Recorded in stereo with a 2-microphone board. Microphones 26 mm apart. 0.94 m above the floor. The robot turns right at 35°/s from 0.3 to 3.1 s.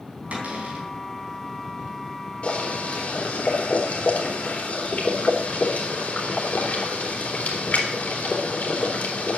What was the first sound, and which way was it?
A cupboard door, 60° right (ahead or behind).